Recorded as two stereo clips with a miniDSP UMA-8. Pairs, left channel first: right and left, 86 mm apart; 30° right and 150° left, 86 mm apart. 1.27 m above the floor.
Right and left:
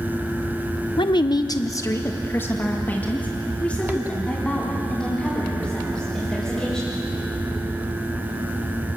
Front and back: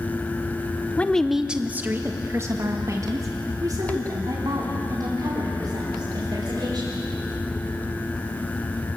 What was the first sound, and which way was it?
A woman speaking, 100° right.